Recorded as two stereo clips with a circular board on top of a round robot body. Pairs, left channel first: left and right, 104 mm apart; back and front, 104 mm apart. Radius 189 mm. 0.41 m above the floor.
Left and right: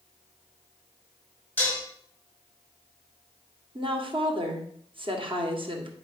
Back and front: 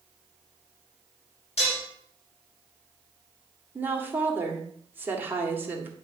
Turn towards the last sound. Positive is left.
turn(degrees=-70)